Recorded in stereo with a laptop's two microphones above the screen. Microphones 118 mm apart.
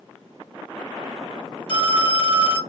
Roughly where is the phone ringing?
Left.